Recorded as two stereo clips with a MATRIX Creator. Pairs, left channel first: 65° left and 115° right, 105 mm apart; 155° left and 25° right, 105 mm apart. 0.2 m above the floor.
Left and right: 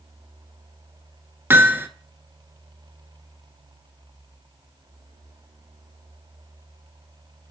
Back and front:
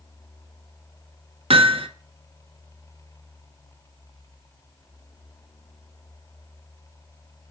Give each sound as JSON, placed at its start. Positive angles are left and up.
{"t": 1.5, "sound": "hammering", "azimuth_deg": -45, "distance_m": 0.7}